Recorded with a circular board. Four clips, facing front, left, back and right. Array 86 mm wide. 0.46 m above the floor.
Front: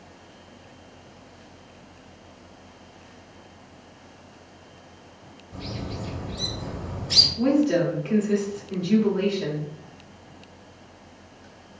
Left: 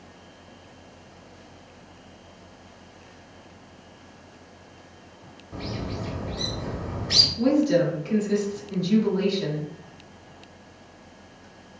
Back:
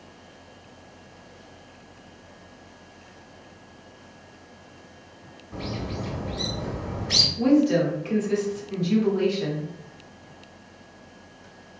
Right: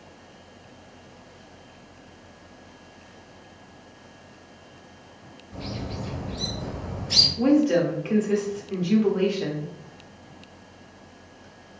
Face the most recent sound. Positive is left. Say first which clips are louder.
# right 1 dB, back 1 dB
turn(degrees=-80)